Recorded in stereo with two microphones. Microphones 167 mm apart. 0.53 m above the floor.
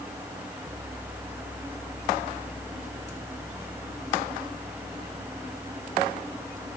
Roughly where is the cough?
I don't hear a cough.